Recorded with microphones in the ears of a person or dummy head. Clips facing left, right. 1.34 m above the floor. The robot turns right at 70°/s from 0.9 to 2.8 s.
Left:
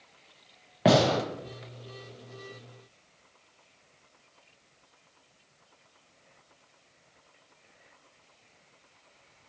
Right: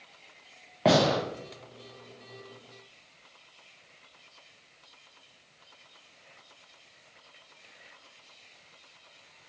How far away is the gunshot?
About 0.7 m.